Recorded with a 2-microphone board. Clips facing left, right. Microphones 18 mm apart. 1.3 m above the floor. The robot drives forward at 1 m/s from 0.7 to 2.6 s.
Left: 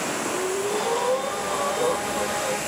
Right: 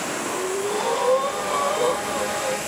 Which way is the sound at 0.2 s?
45° right (ahead or behind).